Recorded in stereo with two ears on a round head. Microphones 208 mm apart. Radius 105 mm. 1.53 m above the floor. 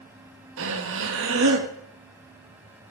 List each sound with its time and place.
0.6 s breathing: 55° right (ahead or behind), 1.8 m